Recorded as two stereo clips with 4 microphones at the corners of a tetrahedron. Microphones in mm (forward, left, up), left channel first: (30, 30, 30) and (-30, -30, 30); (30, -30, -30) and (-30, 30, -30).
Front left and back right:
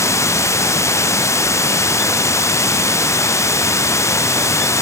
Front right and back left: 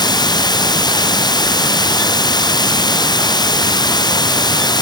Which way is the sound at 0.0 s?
10° right.